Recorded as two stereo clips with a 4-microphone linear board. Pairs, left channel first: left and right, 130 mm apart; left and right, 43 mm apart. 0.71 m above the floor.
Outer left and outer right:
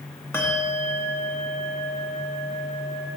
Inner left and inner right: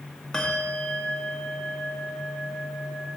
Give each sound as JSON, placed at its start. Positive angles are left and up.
{"t": 0.3, "sound": "a bell", "side_deg": 20, "distance_m": 1.4}